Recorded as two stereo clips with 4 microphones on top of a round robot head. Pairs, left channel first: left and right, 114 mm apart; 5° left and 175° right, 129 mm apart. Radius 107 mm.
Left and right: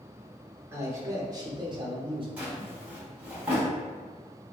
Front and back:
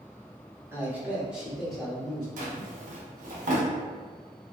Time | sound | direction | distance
0.7 | a man speaking | 130° right | 1.0 m
2.4 | a drawer | 170° right | 0.7 m